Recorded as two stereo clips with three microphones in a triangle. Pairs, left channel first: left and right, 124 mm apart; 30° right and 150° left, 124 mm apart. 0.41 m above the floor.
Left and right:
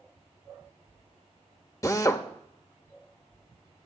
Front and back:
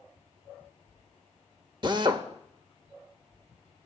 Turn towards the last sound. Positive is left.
turn(degrees=135)